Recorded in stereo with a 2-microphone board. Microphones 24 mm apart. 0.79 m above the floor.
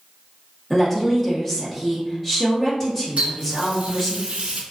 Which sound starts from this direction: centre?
A woman speaking, at 0.7 s.